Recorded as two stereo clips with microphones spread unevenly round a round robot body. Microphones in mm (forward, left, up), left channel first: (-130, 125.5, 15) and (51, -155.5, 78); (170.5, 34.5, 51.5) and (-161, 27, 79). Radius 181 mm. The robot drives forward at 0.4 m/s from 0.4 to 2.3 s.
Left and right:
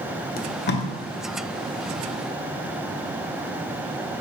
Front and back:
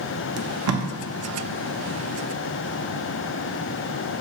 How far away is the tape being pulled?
About 0.5 m.